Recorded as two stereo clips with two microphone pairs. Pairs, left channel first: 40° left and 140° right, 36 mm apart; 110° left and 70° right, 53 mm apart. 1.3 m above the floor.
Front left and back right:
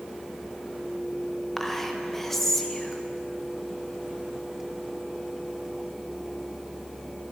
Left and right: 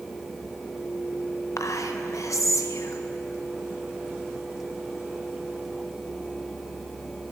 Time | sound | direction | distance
1.6 | whispering | 125° left | 0.7 m